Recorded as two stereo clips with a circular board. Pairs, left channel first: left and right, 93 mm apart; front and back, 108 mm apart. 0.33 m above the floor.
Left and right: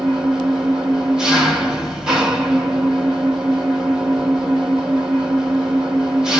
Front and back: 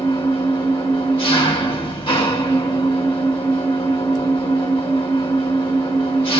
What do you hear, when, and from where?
0.0 s an engine running: 5° right, 1.7 m